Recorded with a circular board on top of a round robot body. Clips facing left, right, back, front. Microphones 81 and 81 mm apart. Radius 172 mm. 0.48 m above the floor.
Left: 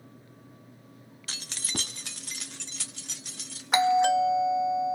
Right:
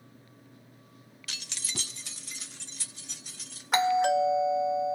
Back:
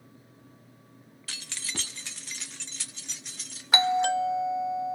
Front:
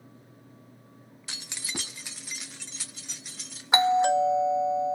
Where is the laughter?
No laughter in this recording.